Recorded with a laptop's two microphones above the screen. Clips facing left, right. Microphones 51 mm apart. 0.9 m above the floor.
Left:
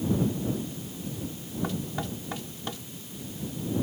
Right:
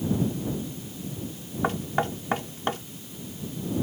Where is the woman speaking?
I don't hear a woman speaking.